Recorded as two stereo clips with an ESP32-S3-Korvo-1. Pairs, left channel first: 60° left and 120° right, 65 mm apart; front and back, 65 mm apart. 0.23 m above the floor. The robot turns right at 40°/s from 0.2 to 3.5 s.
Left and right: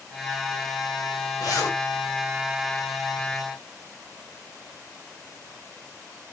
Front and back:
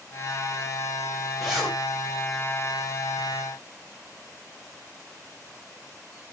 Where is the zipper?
90° left, 5 m; by 1.8 s 105° left, 5 m.